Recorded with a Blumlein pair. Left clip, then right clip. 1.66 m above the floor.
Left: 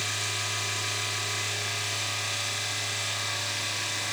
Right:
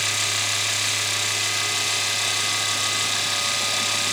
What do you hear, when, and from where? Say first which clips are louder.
0.0 s a machine running: right 7 dB; 60° right, 1.0 m